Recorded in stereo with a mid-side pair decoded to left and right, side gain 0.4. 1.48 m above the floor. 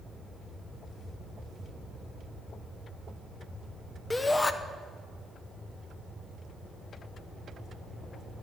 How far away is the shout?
About 0.8 m.